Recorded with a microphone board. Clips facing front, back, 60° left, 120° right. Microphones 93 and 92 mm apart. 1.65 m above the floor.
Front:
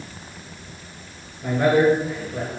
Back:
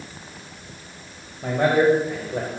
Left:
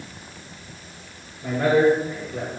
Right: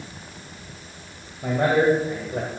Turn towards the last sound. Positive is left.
turn(degrees=-155)